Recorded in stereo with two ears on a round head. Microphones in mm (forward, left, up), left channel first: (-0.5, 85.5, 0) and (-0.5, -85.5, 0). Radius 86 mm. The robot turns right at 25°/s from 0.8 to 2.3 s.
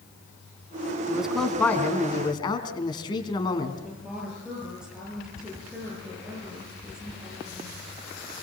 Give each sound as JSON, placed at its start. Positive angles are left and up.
{"t": 1.1, "sound": "a man speaking", "azimuth_deg": -5, "distance_m": 3.5}
{"t": 3.8, "sound": "a woman speaking", "side_deg": -5, "distance_m": 10.0}